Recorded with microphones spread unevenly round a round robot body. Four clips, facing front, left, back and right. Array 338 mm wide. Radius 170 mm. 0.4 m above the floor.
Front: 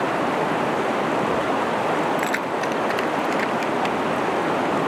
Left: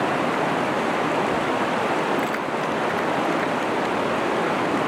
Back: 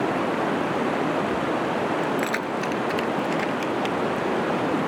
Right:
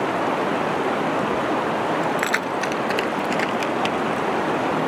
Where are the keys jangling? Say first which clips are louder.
Right 1 dB, front 2 dB; 90° right; by 4.3 s 95° right.